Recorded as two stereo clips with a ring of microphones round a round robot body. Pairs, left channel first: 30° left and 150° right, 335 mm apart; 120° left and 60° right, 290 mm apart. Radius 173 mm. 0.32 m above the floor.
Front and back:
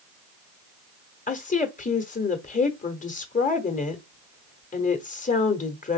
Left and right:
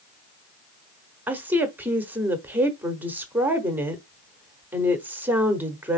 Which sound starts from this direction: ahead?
A woman speaking, at 1.3 s.